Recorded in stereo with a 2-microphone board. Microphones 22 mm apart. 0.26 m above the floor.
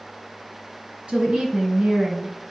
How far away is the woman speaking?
About 2.5 m.